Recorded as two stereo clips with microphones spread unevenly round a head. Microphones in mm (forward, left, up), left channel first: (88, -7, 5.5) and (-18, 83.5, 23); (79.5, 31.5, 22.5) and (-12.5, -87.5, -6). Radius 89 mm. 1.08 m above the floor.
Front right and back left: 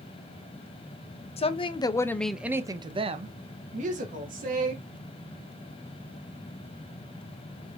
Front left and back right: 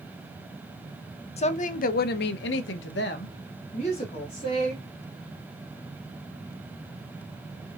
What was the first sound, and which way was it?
A woman speaking, 5° left.